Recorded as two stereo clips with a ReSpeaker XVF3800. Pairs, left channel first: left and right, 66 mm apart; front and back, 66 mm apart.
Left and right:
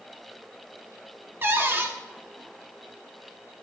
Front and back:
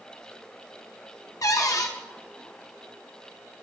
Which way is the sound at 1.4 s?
30° right.